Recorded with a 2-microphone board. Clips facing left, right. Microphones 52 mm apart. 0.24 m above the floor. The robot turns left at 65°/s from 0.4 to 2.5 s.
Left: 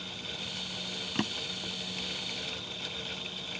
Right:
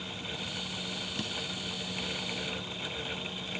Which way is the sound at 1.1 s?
50° left (ahead or behind).